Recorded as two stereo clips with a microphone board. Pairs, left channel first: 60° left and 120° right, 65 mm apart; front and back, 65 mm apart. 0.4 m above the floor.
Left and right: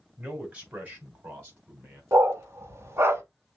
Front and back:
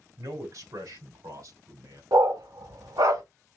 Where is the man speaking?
170° left, 2.5 m; by 2.0 s 170° right, 3.5 m.